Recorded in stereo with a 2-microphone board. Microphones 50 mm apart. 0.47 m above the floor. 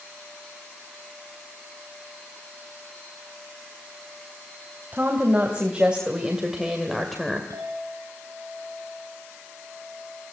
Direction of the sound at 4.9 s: 25° right (ahead or behind).